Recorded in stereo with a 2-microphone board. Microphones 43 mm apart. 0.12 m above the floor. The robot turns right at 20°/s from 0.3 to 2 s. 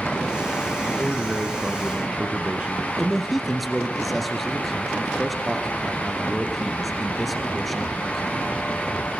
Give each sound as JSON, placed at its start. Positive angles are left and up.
{"t": 0.8, "sound": "a man speaking", "side_deg": -25, "distance_m": 1.1}
{"t": 3.0, "sound": "a man speaking", "side_deg": 0, "distance_m": 1.7}